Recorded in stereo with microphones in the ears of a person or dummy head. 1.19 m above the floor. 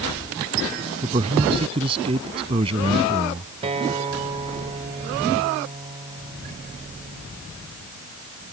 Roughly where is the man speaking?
Right.